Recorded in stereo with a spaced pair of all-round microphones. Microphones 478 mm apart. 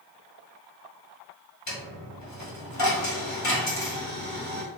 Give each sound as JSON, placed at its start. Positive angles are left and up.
{"t": 1.7, "sound": "a dropped coin", "side_deg": 35, "distance_m": 1.4}